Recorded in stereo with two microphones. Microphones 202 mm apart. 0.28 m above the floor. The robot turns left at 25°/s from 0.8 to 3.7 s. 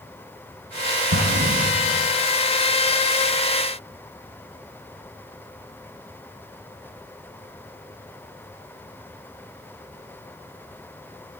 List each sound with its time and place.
1.1 s an explosion: 85° right, 4 m; by 2.1 s 60° right (ahead or behind), 4 m